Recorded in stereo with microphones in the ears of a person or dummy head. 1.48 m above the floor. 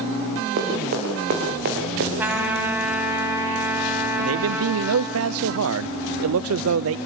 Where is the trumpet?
10° right (ahead or behind), 3 m.